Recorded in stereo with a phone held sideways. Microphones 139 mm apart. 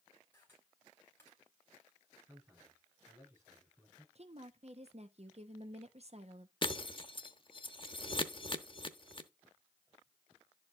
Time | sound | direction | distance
0.3 | a camera shutter | 15° left (ahead or behind) | 4.5 m
2.3 | a man speaking | 20° right (ahead or behind) | 9 m
4.2 | a woman speaking | 50° right (ahead or behind) | 1.0 m
6.6 | breaking glass | 35° left (ahead or behind) | 0.7 m